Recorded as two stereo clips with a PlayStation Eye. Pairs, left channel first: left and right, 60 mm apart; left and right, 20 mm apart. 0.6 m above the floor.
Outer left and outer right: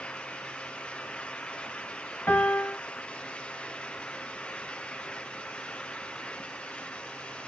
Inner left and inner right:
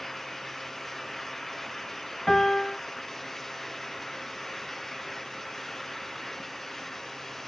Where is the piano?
30° left (ahead or behind), 1.7 m.